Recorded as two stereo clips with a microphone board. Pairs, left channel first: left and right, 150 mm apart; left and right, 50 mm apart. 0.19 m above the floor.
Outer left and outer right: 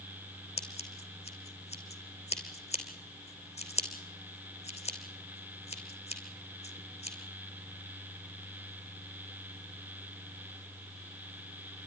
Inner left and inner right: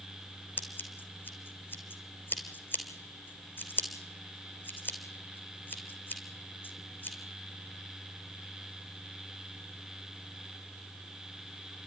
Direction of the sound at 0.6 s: 45° left (ahead or behind).